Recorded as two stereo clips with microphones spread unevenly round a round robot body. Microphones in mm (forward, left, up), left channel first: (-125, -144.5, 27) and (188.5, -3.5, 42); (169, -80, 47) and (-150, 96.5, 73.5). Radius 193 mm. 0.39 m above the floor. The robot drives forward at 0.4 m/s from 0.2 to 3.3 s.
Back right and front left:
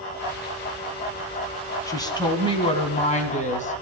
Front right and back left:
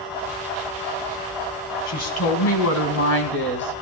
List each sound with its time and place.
1.9 s a woman speaking: 75° right, 3 m; by 3.8 s 85° right, 3 m